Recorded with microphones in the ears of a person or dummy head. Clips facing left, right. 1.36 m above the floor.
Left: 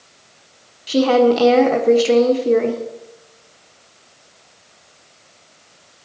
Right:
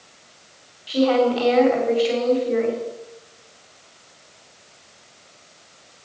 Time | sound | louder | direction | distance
0.9 | a woman speaking | left 4 dB | 55° left (ahead or behind) | 1.6 m